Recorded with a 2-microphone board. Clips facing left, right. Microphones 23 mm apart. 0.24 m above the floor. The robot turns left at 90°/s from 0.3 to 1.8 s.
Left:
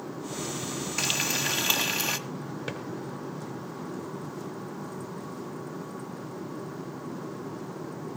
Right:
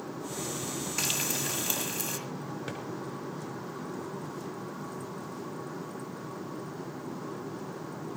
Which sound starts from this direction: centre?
A drawer, at 2.7 s.